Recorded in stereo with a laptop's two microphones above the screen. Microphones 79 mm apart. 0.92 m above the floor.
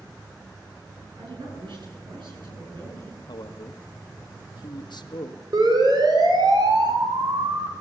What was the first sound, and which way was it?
A woman speaking, 85° right.